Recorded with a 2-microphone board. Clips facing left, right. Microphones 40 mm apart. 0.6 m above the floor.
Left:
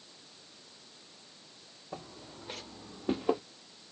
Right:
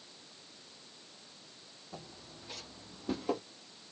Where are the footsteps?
70° left (ahead or behind), 1.9 m; by 3.4 s 30° left (ahead or behind), 1.0 m.